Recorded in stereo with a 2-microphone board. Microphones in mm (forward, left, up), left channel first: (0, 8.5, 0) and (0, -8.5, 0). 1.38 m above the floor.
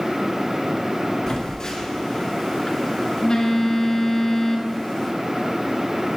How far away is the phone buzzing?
About 3 m.